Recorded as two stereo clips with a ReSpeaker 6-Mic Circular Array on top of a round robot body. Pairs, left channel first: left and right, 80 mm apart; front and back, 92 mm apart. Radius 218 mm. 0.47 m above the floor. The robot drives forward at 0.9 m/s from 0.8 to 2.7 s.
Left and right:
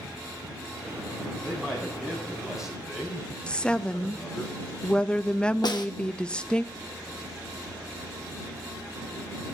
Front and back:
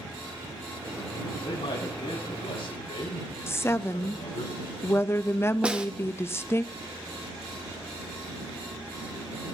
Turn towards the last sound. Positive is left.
turn(degrees=105)